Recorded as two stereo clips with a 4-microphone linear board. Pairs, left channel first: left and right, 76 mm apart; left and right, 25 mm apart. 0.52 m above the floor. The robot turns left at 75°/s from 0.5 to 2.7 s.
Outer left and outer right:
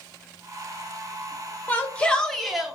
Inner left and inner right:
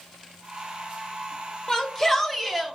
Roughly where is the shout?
Left.